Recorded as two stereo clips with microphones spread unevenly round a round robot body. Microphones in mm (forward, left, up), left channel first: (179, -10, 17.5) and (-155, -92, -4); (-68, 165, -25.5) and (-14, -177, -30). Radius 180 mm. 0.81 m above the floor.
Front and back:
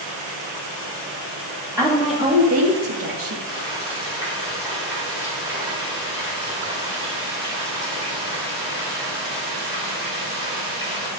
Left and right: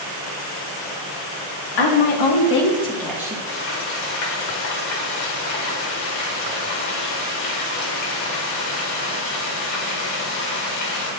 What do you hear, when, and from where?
1.8 s a woman speaking: 110° left, 1.9 m; by 3.4 s 155° right, 1.7 m
3.5 s frying: 115° left, 3 m